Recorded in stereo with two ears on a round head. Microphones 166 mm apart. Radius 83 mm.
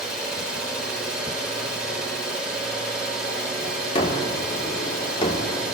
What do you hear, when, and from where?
0.0 s an engine running: 5° right (ahead or behind), 3 m
4.0 s a gunshot: 30° left (ahead or behind), 1.1 m